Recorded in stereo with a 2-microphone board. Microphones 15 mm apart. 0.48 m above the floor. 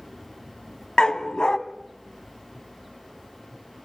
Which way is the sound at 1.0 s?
85° left.